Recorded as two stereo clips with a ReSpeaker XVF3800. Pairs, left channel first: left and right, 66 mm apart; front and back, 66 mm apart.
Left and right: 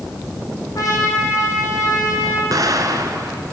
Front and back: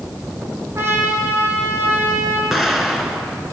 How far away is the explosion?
About 2.5 m.